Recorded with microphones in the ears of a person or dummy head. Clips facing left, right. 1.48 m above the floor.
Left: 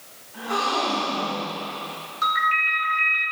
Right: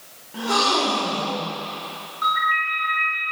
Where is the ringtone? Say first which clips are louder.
Right 1 dB; 30° left (ahead or behind), 7 m.